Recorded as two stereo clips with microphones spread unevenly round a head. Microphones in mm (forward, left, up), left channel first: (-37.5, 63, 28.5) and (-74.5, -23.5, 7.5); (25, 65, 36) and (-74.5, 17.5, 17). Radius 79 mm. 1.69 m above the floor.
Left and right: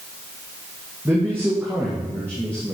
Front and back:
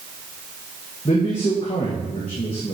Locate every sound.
1.1 s a man speaking: 30° right, 2 m